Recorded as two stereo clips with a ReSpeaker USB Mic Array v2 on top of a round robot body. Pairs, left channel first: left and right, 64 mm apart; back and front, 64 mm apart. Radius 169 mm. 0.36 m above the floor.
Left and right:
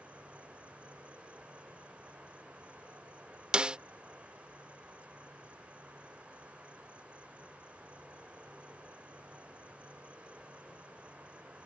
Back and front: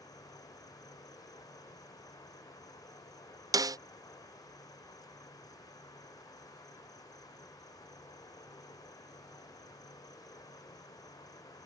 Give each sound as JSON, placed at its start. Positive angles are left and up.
{"t": 0.0, "sound": "an insect", "azimuth_deg": -160}
{"t": 3.5, "sound": "a snare drum", "azimuth_deg": -15}